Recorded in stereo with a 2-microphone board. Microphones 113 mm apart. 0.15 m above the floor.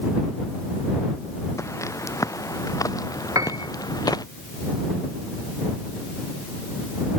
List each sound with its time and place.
1.6 s footsteps: 25° left (ahead or behind); by 4.2 s 35° left (ahead or behind)
3.4 s a piano: 30° right (ahead or behind)